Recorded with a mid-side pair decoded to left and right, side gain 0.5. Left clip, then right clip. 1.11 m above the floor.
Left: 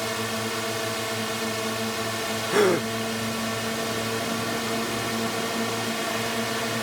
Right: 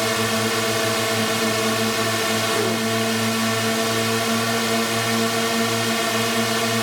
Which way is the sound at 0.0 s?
45° right.